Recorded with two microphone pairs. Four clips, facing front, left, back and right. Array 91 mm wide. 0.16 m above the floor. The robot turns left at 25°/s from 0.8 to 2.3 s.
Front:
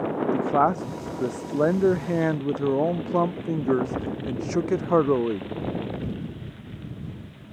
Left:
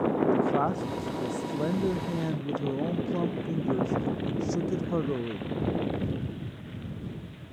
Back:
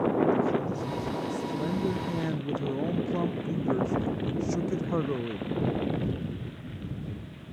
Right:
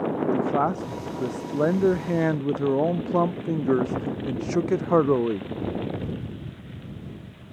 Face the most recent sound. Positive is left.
turn(degrees=-55)